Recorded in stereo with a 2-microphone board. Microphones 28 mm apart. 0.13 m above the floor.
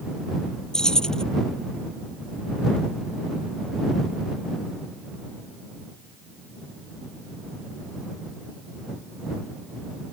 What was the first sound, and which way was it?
Keys jangling, 20° left (ahead or behind).